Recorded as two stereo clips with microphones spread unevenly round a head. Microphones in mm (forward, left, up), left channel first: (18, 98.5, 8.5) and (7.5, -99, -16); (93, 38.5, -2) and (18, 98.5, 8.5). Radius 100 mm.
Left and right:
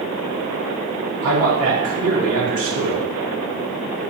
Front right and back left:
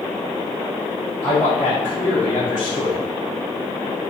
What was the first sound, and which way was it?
A man speaking, 85° right.